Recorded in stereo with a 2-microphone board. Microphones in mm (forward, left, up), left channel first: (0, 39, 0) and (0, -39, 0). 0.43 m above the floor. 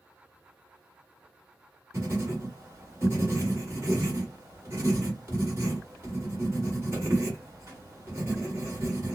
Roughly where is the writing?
Right.